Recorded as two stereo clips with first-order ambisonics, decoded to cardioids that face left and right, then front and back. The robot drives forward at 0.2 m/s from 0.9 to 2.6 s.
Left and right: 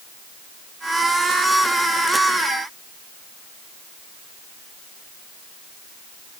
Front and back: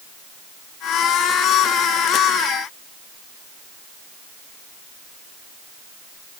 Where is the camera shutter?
I don't hear a camera shutter.